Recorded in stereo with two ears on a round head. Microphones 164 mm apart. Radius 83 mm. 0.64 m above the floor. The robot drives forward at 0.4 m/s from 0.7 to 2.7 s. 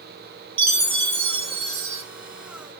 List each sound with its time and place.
0.6 s a chime: 30° right (ahead or behind), 2.5 m; by 2.0 s 35° right (ahead or behind), 2.5 m